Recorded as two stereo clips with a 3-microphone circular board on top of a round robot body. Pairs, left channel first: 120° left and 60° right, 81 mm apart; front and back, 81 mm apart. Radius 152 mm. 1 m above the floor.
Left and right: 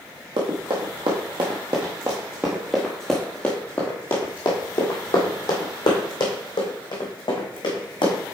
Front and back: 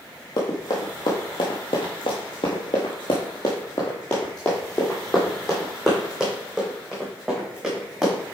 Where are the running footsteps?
40° right, 1.7 m; by 8.2 s 100° left, 3 m.